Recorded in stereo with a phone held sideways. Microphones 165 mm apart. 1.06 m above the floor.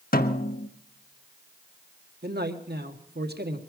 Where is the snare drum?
65° left (ahead or behind), 1.2 m.